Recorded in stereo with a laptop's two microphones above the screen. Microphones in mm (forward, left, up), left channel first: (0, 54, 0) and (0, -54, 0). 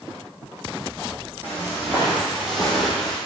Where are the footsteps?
20° right (ahead or behind), 2.5 m; by 3.2 s 5° left (ahead or behind), 2.0 m.